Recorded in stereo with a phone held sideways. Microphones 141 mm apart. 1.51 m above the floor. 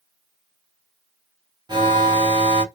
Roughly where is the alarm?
Right.